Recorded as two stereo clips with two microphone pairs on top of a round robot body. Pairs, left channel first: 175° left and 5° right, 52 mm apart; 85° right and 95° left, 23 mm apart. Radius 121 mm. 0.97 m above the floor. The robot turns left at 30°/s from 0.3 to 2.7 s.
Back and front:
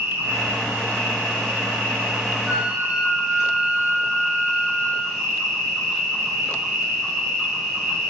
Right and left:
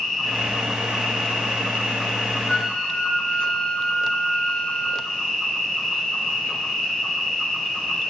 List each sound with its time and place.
0.0 s an insect: 20° right, 2.5 m; by 8.1 s 95° right, 2.5 m
2.5 s a flute: 65° right, 1.4 m; by 5.1 s 70° right, 1.4 m